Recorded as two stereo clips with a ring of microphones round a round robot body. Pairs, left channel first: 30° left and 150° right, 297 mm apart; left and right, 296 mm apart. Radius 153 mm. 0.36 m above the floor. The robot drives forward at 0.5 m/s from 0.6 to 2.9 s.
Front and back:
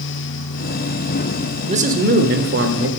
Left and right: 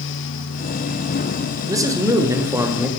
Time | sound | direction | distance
1.7 | a man speaking | 145° right | 0.9 m